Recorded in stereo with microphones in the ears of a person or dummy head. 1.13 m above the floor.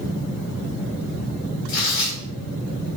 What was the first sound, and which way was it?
Tearing paper, 75° left (ahead or behind).